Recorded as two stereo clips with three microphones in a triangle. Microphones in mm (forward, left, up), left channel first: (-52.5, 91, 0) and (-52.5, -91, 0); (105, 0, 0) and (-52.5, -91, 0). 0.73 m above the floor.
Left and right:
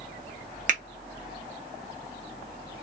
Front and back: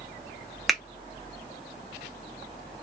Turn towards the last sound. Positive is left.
turn(degrees=-60)